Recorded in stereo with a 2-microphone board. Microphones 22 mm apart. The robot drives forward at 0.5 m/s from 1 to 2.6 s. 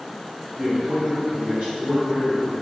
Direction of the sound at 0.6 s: 60° right (ahead or behind).